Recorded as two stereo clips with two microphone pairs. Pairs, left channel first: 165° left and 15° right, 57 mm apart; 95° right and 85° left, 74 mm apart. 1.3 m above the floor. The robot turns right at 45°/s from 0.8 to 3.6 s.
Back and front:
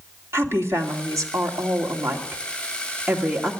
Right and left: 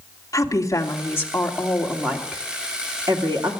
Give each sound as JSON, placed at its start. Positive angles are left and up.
{"t": 0.3, "sound": "a woman speaking", "azimuth_deg": -50, "distance_m": 2.5}